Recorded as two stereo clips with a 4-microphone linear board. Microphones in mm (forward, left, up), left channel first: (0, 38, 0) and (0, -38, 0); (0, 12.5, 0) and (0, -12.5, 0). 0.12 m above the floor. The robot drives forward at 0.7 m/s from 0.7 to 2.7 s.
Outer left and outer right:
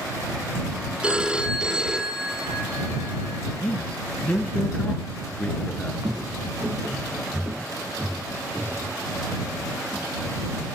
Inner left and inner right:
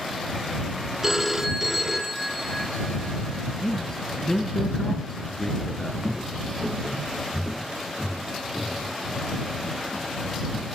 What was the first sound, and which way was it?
A phone ringing, 15° right (ahead or behind).